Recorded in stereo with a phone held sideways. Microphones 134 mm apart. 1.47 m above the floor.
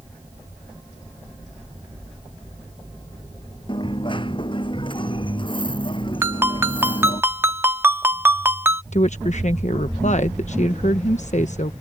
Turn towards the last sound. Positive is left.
turn(degrees=65)  # may be behind; listen again after turning